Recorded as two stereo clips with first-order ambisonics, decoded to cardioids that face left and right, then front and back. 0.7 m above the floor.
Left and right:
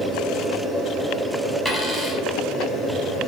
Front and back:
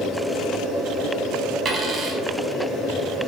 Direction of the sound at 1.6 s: Straight behind.